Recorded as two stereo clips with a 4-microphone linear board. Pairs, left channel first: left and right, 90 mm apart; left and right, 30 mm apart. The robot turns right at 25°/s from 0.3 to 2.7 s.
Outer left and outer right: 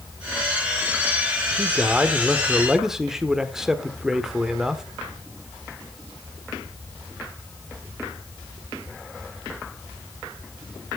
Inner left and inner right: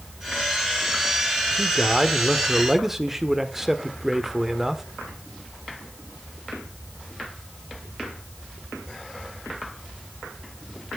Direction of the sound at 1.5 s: 15° right (ahead or behind).